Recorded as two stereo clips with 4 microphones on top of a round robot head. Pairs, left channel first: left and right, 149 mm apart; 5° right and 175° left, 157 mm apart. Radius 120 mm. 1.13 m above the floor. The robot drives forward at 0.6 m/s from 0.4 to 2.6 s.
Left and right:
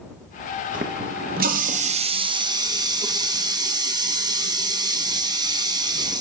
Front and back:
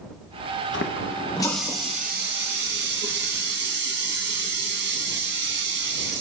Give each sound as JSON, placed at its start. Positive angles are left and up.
{"t": 0.7, "sound": "a running tap", "azimuth_deg": -35, "distance_m": 0.6}